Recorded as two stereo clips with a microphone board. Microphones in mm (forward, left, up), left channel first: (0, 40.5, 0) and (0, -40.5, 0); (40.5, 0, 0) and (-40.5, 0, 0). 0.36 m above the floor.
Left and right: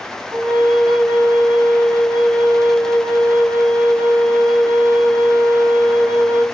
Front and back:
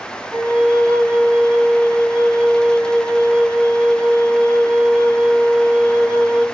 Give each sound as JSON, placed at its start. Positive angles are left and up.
{"t": 0.3, "sound": "a flute", "azimuth_deg": -85, "distance_m": 1.7}